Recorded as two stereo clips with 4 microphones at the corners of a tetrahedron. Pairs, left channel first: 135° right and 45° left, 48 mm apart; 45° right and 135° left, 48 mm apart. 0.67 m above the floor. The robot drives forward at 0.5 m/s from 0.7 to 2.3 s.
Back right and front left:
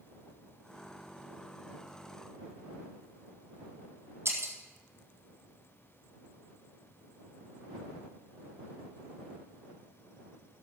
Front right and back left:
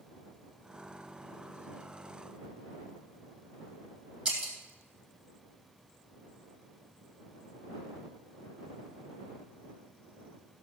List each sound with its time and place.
4.2 s breaking glass: 80° left, 3 m